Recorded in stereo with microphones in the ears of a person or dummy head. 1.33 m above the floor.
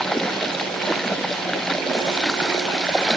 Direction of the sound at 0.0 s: Centre (ahead or behind).